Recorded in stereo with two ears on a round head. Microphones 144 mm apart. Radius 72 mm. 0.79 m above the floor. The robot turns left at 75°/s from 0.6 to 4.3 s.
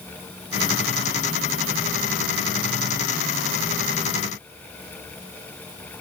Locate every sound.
Only background noise.